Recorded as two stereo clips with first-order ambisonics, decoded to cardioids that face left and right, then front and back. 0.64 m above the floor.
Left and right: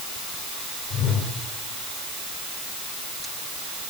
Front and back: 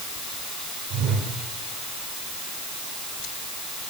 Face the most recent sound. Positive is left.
turn(degrees=145)